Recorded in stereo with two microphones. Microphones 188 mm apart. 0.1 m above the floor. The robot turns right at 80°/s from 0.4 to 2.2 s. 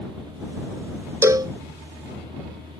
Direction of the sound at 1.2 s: 15° right (ahead or behind).